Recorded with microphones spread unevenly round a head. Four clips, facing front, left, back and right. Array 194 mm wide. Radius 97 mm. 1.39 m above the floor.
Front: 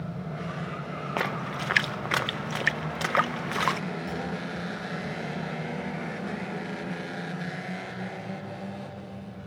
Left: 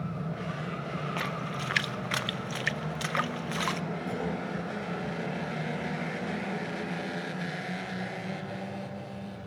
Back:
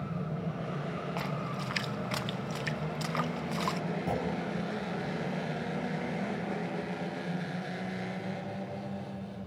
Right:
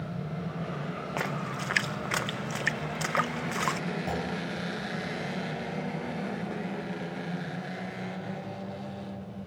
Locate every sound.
1.2 s a splash: 15° right, 0.9 m
4.1 s a clunk: 145° right, 6 m